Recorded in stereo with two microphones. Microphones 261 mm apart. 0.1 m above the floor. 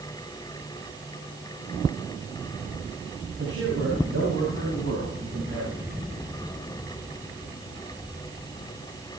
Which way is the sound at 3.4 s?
70° right (ahead or behind).